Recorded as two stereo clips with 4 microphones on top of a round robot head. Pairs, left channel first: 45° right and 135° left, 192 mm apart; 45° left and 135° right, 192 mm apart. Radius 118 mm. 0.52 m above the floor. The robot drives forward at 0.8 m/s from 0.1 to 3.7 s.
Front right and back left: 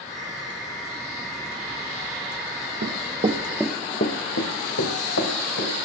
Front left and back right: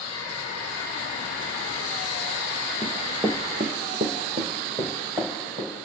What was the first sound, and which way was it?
Running footsteps, 115° left.